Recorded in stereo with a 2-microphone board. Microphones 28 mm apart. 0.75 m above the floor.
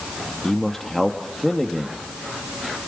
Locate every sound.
0.4 s a man speaking: 10° left (ahead or behind), 1.2 m